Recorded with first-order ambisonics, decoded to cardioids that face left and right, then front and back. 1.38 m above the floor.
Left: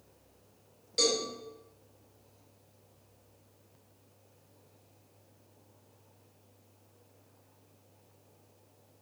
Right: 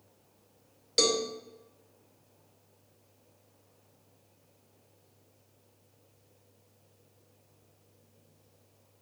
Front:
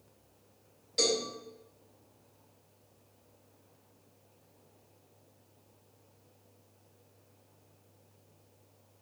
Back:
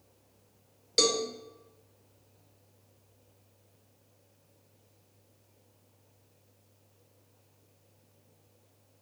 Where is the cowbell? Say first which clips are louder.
Right 2 dB, back 3 dB; 140° right, 0.6 m.